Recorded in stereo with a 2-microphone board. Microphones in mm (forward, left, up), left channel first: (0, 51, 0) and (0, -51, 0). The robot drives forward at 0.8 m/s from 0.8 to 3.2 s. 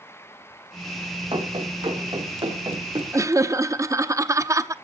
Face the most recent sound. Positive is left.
turn(degrees=-30)  # may be behind; listen again after turning